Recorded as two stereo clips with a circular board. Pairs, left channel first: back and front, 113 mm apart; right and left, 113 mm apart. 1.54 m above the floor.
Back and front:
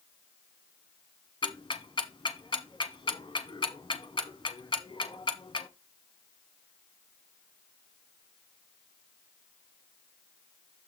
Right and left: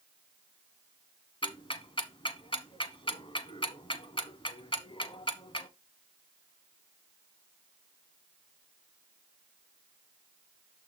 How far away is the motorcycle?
No motorcycle in this recording.